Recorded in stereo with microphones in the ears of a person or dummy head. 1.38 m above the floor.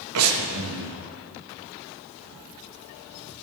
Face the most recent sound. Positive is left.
turn(degrees=-80)